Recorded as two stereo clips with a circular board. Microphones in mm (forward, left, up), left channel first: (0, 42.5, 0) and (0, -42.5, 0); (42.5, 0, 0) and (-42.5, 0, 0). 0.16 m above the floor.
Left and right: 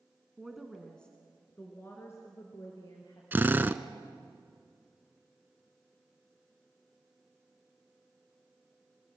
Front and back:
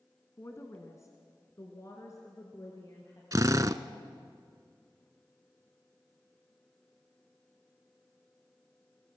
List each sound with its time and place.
0.4 s a woman speaking: 10° right, 1.7 m; by 3.2 s 50° left, 3.5 m
3.3 s a drill: 150° right, 0.8 m